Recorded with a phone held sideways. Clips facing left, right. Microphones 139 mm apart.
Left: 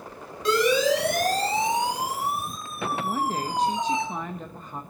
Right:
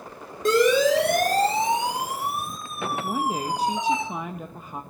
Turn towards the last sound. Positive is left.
turn(degrees=-10)  # may be behind; listen again after turning